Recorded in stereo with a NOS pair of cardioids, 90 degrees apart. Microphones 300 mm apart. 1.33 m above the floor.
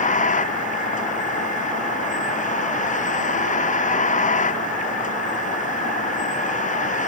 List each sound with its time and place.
0.0 s a vehicle: 25° left